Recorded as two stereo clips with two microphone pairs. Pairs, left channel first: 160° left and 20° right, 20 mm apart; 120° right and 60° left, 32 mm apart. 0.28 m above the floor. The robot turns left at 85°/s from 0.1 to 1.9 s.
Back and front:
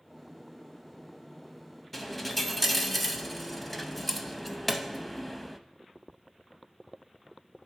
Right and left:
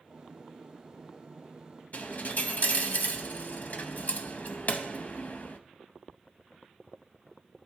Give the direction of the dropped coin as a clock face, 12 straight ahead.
4 o'clock.